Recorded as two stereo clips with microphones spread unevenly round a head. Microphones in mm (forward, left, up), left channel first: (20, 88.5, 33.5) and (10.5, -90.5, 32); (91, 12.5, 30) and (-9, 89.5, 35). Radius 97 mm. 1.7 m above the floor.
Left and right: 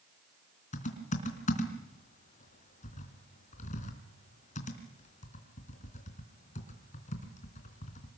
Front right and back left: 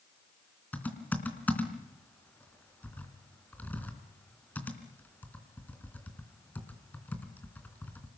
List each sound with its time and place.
0.7 s typing on a keyboard: 40° left, 3.5 m